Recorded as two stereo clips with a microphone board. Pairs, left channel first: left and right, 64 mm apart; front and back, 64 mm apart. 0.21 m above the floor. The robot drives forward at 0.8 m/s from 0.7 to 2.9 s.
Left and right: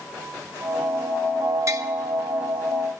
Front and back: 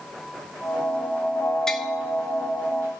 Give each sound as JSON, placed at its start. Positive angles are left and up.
{"t": 1.7, "sound": "tapping", "azimuth_deg": -75, "distance_m": 1.0}